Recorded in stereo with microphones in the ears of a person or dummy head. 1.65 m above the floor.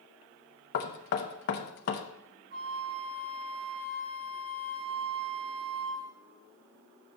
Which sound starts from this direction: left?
Knocking, at 0.7 s.